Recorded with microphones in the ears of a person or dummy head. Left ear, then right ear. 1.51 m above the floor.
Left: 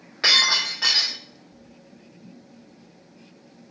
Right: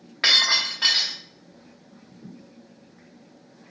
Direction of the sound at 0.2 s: 20° right (ahead or behind).